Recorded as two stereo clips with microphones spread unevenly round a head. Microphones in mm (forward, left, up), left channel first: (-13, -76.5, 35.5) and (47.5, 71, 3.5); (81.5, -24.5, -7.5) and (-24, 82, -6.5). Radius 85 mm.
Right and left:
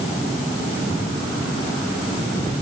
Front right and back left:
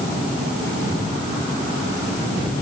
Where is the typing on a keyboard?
I don't hear typing on a keyboard.